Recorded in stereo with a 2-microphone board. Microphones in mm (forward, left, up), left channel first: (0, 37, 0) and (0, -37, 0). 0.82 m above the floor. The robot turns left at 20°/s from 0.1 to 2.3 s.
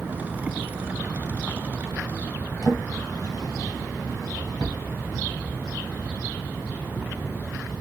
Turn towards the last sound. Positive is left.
turn(degrees=50)  # may be behind; listen again after turning